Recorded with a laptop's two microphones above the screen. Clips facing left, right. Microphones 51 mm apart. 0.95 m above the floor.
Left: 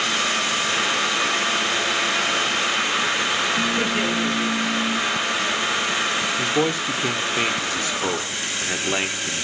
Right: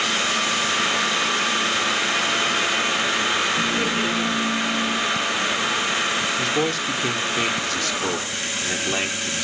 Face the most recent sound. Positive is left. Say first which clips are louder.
# left 1 dB
turn(degrees=15)  # may be behind; listen again after turning